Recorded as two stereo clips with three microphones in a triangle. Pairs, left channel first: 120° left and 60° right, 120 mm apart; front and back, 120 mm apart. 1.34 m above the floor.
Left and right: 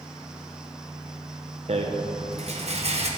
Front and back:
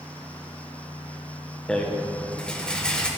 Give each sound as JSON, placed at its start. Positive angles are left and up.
{"t": 1.7, "sound": "a rattle", "azimuth_deg": -80, "distance_m": 1.1}